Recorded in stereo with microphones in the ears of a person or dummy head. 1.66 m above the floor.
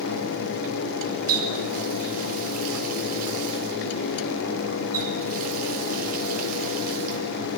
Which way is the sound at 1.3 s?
50° right (ahead or behind).